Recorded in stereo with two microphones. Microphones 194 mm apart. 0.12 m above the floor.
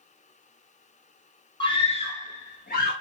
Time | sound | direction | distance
1.6 | a scream | 25° left (ahead or behind) | 1.2 m